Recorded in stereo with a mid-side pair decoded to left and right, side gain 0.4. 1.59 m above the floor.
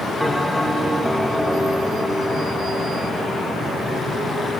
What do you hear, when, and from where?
0.2 s a bell: straight ahead, 1.2 m